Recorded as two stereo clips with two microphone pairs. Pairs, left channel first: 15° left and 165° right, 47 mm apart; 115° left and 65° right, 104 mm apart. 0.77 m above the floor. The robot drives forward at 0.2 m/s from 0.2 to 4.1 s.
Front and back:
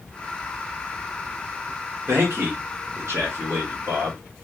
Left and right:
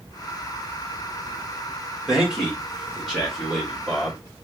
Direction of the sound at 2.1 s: 150° right.